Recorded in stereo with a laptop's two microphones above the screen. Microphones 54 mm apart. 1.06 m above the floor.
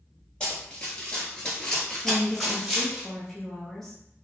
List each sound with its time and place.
0.4 s running footsteps: 15° left (ahead or behind), 1.5 m; by 3.0 s centre (ahead or behind), 2 m
2.0 s a woman speaking: 5° left (ahead or behind), 0.7 m